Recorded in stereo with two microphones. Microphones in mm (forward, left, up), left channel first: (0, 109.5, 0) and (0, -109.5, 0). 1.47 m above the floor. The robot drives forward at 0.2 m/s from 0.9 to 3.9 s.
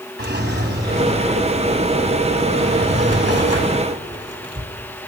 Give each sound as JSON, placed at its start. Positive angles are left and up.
{"t": 0.2, "sound": "a drawer", "side_deg": -50, "distance_m": 2.5}